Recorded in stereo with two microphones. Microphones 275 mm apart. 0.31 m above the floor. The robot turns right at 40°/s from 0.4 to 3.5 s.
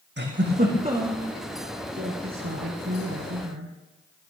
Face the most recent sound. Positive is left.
turn(degrees=-80)